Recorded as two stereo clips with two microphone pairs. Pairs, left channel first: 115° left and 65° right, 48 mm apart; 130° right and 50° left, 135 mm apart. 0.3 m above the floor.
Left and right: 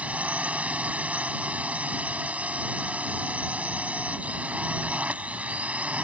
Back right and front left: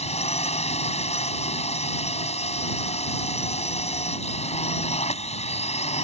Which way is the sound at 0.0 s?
120° right.